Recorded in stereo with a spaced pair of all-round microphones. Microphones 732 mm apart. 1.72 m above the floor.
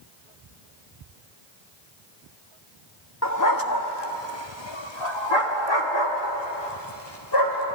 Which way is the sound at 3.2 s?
20° left (ahead or behind).